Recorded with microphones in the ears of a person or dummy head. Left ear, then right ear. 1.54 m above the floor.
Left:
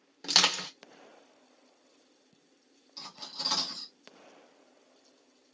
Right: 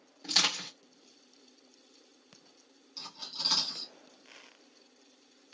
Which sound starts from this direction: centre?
Cutlery clinking, at 3.0 s.